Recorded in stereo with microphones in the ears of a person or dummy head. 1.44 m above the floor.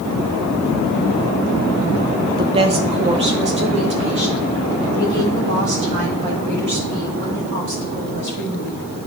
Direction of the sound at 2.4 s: 25° right (ahead or behind).